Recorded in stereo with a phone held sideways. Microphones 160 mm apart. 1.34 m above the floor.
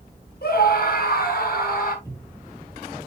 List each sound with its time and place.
0.4 s a scream: 75° left (ahead or behind), 6.5 m; by 1.9 s 65° left (ahead or behind), 6.5 m
2.0 s a cupboard door: 20° left (ahead or behind), 2.5 m